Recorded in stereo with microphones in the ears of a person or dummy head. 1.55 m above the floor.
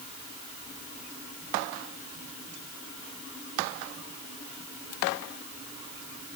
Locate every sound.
Only background noise.